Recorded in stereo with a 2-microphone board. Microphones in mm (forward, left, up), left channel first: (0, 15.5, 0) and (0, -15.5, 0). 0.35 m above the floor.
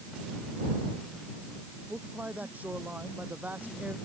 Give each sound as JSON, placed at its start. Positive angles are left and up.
{"t": 1.9, "sound": "a man speaking", "side_deg": -60}